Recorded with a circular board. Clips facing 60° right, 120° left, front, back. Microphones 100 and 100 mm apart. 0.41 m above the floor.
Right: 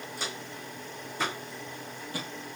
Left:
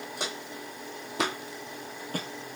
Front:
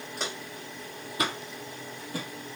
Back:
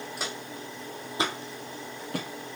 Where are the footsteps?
95° left, 1.6 m; by 2.3 s 165° left, 0.8 m.